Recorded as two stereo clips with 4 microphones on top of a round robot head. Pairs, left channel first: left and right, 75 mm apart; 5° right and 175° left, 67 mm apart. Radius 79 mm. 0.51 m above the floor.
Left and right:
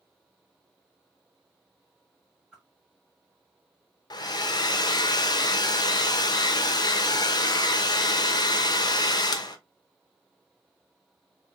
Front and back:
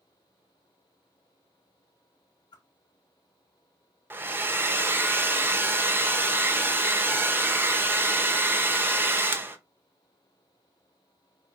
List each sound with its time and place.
2.5 s a whoosh: 10° right, 0.9 m
4.1 s a hair dryer: 115° left, 0.7 m